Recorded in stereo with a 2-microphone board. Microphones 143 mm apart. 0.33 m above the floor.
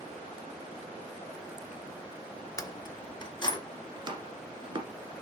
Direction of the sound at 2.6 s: 25° left (ahead or behind).